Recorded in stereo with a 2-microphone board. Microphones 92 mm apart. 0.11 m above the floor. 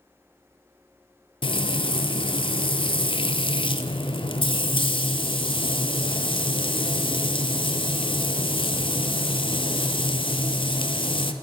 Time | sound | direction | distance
1.4 | frying | 65° left (ahead or behind) | 0.6 m